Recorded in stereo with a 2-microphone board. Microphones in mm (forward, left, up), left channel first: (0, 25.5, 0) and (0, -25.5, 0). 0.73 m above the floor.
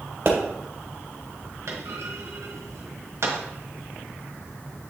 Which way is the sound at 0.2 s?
55° right (ahead or behind).